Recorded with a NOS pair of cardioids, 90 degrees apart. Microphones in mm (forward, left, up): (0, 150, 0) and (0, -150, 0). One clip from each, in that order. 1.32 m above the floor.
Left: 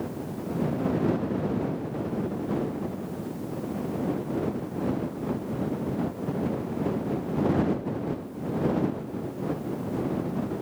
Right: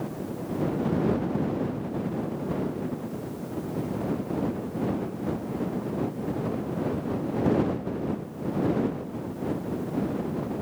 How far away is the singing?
No singing in this recording.